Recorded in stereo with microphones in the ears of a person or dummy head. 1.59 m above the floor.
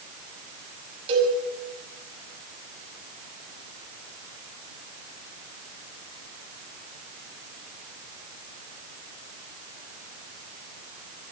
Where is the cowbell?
30° right (ahead or behind), 6.5 m.